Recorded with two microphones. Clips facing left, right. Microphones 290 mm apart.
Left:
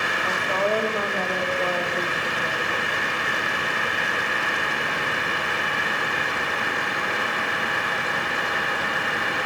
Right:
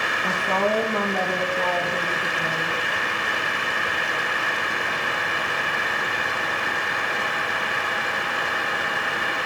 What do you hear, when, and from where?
0.2 s a woman speaking: 75° right (ahead or behind), 9 m; by 3.0 s 80° right, 10 m